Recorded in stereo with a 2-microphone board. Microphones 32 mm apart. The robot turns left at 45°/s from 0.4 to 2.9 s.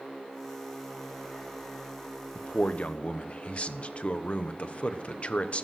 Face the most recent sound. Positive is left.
turn(degrees=40)  # may be behind; listen again after turning